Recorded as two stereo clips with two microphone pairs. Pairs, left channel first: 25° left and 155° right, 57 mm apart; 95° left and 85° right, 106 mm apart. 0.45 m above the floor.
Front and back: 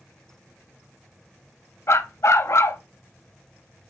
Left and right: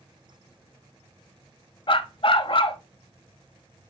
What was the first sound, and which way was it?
A dog barking, 60° left.